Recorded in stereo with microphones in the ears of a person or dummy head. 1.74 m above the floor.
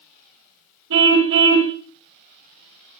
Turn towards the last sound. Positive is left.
turn(degrees=-65)  # may be behind; listen again after turning